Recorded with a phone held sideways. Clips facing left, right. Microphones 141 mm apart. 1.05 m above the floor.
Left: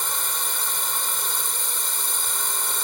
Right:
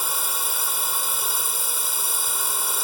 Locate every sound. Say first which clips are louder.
0.0 s a drone: right 1 dB; 5° right (ahead or behind)